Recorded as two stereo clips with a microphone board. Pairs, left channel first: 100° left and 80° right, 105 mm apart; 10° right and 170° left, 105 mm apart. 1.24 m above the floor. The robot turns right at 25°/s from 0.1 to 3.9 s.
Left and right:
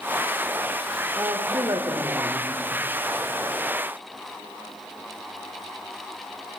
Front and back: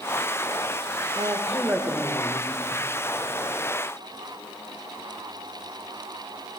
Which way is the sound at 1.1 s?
135° right.